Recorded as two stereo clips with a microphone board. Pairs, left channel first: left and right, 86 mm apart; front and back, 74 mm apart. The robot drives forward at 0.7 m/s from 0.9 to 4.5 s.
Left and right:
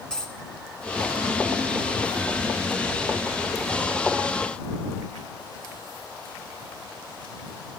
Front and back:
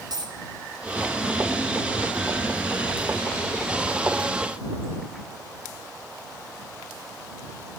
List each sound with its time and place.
0.1 s a dropped coin: 170° left, 1.4 m